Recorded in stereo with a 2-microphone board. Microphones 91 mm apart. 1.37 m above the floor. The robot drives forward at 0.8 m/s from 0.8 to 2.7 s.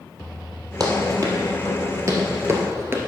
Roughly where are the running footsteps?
Right.